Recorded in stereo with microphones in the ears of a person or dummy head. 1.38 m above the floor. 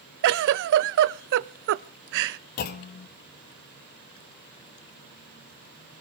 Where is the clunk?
50° left (ahead or behind), 1.1 m.